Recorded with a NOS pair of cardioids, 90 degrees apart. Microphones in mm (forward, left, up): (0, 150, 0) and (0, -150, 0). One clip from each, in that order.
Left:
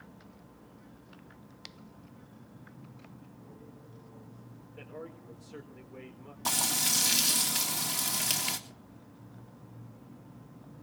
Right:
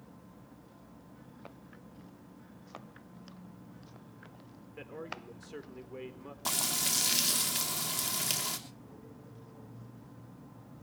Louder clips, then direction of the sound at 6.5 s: Left 3 dB; 10° left.